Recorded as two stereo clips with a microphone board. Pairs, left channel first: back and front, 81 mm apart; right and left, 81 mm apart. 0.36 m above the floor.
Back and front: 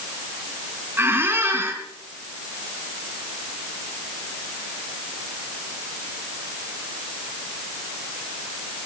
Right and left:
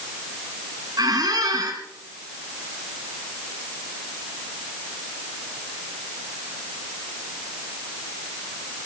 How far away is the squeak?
About 3 m.